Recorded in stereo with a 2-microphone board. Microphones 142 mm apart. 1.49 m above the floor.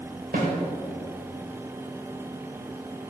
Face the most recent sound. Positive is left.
turn(degrees=-80)